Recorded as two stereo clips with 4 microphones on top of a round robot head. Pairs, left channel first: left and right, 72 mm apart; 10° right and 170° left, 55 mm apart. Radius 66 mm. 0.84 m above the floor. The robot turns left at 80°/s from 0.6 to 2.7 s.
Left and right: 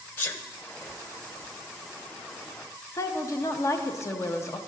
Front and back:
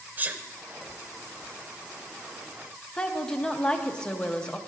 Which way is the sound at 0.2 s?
135° left.